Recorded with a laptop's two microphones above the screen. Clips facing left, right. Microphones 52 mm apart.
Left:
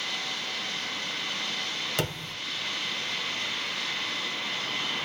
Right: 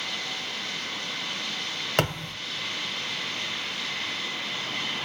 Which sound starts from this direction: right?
A thud, at 2.0 s.